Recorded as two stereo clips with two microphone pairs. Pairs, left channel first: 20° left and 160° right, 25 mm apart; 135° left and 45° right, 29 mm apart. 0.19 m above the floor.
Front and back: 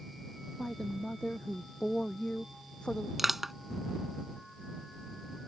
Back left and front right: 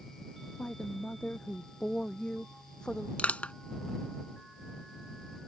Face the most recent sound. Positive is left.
turn(degrees=120)